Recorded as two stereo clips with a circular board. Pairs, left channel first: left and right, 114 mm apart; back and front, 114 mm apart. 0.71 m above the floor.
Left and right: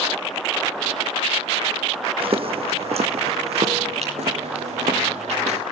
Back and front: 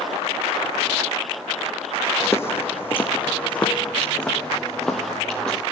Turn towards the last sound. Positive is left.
turn(degrees=-100)